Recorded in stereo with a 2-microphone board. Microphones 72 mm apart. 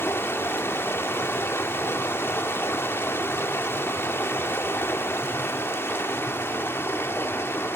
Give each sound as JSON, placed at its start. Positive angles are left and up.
{"t": 0.0, "sound": "running water", "side_deg": 35, "distance_m": 0.8}